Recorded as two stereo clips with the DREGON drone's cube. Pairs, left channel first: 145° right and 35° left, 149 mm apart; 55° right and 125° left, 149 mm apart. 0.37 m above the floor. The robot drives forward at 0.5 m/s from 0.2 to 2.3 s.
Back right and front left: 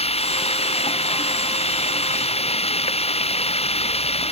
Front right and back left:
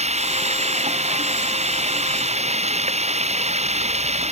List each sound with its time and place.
0.0 s running water: 165° left; by 4.3 s 170° left